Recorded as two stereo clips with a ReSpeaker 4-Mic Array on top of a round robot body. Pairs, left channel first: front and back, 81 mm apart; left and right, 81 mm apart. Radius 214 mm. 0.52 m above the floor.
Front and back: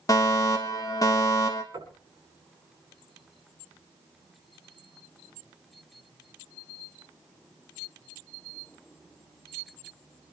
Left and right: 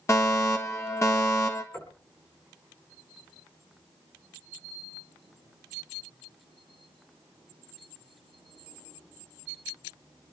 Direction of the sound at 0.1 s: 40° left.